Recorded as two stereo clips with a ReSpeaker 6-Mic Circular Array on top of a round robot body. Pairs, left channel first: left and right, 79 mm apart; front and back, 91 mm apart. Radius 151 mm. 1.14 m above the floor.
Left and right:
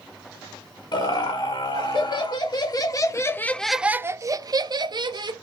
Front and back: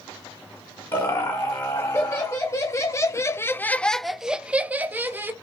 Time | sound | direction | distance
0.9 | laughter | 60° left | 1.5 m